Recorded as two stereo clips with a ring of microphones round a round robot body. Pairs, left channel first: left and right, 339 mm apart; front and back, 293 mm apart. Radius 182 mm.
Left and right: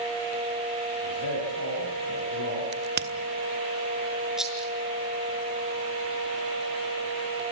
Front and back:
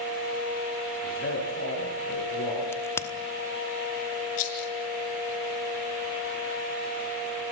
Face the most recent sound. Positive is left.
turn(degrees=0)